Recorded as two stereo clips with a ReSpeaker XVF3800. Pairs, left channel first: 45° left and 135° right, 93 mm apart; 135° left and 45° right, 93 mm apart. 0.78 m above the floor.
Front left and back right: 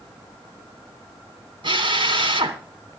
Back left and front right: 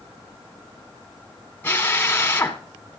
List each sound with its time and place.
1.6 s a drill: 155° right, 3 m